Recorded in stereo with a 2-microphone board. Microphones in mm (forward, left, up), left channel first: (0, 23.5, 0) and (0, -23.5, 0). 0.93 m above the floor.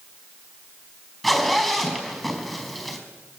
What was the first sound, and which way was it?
A zipper, centre (ahead or behind).